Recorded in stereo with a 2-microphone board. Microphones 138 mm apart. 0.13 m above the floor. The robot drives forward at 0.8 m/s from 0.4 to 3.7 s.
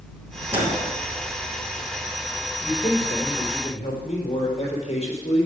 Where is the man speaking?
40° left (ahead or behind), 4.5 m; by 5.5 s 45° left (ahead or behind), 4 m.